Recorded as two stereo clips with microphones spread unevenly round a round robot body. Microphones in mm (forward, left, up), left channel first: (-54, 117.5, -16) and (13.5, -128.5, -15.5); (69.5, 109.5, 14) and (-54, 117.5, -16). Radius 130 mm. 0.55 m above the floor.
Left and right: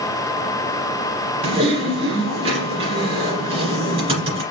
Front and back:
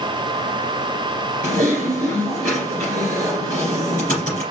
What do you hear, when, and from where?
1.4 s typing on a keyboard: 145° right, 2.5 m